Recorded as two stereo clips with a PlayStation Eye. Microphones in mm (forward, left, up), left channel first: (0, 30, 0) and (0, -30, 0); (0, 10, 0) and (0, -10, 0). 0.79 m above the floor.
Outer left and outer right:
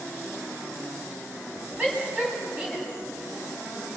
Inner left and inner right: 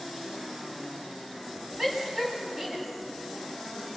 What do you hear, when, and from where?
1.8 s a shout: 20° right (ahead or behind), 7.5 m